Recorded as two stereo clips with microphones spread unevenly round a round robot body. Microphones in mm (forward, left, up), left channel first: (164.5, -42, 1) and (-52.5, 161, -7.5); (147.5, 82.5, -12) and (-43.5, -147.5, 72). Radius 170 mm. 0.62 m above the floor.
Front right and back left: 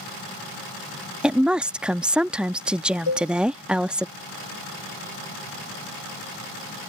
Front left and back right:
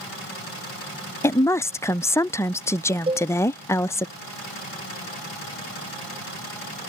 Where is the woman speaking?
55° left.